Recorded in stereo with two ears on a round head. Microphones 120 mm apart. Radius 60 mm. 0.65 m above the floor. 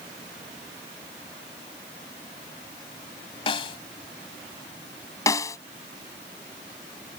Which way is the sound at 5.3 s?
25° left (ahead or behind).